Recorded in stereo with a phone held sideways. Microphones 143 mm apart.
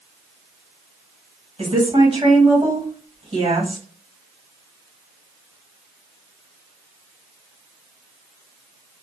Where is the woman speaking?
45° right (ahead or behind), 1.4 m.